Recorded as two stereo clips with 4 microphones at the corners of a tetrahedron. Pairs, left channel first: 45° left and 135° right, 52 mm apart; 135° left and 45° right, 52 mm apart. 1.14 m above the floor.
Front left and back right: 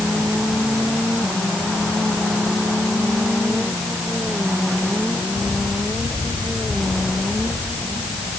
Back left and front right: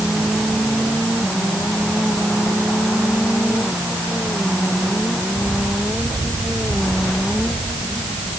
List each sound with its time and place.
Only background noise.